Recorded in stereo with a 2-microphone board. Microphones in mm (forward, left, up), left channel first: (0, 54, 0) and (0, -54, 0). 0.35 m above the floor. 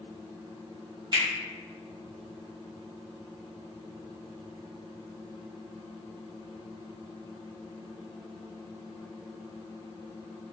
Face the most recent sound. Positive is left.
turn(degrees=-50)  # may be behind; listen again after turning